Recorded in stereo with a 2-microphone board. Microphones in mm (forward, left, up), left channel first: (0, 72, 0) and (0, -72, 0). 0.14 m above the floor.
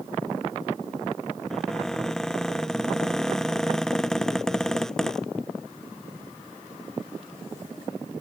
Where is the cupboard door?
5° left (ahead or behind).